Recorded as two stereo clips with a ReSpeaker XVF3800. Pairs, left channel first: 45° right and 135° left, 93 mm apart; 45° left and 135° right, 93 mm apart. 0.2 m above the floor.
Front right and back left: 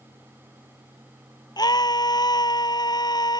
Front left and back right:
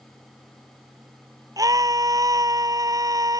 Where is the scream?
85° right.